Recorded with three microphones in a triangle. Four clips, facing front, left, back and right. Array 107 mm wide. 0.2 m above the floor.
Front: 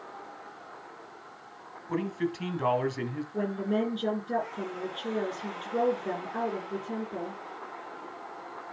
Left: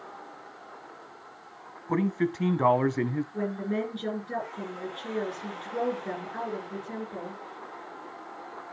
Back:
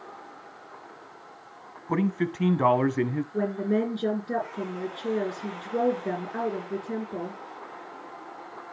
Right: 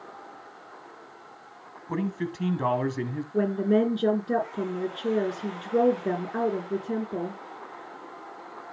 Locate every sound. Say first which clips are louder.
1.9 s a man speaking: left 3 dB, back 4 dB; 145° left, 1.3 m
3.3 s a woman speaking: right 7 dB, back 2 dB; 100° right, 6 m